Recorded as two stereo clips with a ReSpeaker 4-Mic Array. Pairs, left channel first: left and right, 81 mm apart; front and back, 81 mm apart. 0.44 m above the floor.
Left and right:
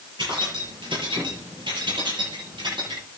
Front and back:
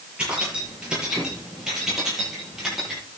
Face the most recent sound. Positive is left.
turn(degrees=-95)